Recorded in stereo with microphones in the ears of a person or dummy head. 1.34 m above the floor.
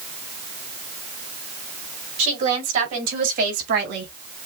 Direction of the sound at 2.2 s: 35° right (ahead or behind).